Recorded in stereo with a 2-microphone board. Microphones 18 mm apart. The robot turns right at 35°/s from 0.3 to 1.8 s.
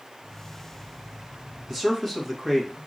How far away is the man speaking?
About 1.6 m.